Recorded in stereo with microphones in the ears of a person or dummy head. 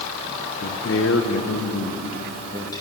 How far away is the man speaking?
About 1.2 m.